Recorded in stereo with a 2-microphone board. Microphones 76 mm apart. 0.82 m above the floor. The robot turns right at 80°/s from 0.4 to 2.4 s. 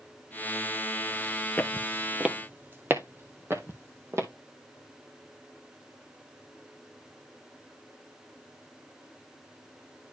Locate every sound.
1.6 s footsteps: 20° left (ahead or behind), 0.9 m; by 4.3 s 35° right (ahead or behind), 2.0 m